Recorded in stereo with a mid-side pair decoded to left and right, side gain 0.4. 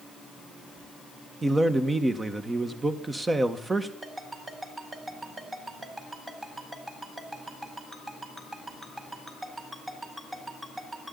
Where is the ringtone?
25° right, 5 m.